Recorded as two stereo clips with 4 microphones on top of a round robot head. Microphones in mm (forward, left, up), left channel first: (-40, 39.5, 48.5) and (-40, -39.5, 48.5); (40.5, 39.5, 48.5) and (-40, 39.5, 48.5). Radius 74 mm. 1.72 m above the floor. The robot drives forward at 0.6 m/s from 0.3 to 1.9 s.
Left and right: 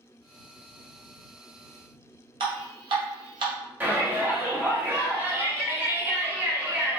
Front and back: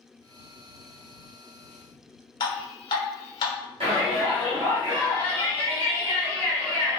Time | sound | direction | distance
2.4 | dripping | 50° right | 0.8 m
3.8 | a shout | 160° right | 1.6 m